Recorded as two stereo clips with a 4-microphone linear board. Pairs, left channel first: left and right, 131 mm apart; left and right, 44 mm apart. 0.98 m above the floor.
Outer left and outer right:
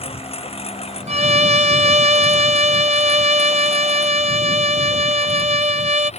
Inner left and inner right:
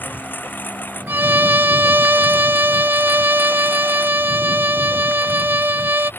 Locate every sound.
0.0 s a lawn mower: 50° left (ahead or behind); by 6.2 s 55° left (ahead or behind)
1.1 s a violin: 55° right (ahead or behind)